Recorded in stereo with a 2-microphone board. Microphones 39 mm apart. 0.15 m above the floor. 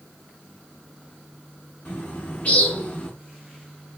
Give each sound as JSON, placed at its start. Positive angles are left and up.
{"t": 1.9, "sound": "a bird", "side_deg": 35, "distance_m": 1.0}